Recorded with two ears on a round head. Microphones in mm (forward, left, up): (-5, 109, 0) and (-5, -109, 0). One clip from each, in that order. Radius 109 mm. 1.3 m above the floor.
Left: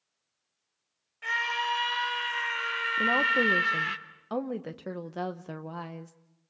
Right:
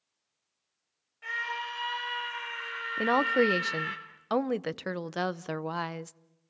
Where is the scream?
25° left (ahead or behind), 5.5 m.